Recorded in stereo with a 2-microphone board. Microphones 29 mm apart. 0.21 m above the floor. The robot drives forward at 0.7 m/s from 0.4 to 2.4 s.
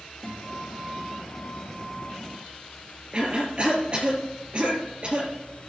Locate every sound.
0.2 s a guitar: 20° left (ahead or behind), 3 m; by 2.2 s 30° left (ahead or behind), 2 m
3.1 s a cough: 30° right (ahead or behind), 3.5 m